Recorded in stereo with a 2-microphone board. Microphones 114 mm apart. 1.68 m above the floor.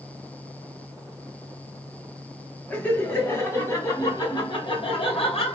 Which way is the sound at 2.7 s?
15° left (ahead or behind).